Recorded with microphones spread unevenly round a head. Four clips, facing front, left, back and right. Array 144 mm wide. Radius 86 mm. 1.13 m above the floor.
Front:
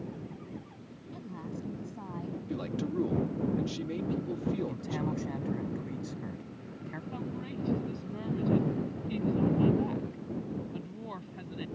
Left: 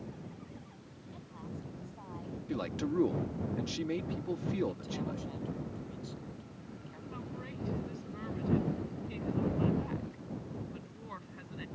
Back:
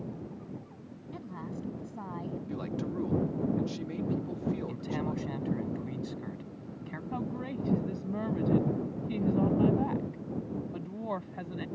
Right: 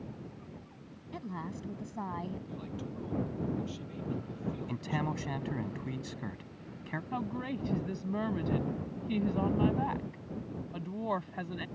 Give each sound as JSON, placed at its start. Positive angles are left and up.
{"t": 1.1, "sound": "a woman speaking", "azimuth_deg": -85}
{"t": 2.5, "sound": "a man speaking", "azimuth_deg": 85}
{"t": 4.7, "sound": "a man speaking", "azimuth_deg": -70}
{"t": 7.1, "sound": "a woman speaking", "azimuth_deg": -125}